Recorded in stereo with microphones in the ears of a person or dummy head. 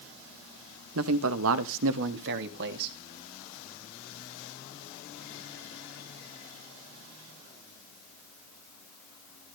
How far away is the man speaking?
About 1.6 m.